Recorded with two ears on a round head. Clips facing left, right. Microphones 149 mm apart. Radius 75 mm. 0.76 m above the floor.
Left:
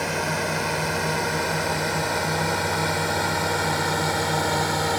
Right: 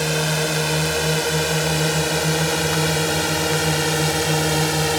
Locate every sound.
0.0 s a drone: 40° right (ahead or behind); by 5.0 s 30° right (ahead or behind)